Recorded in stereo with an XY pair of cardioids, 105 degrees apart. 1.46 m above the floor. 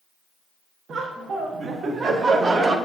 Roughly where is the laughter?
Ahead right.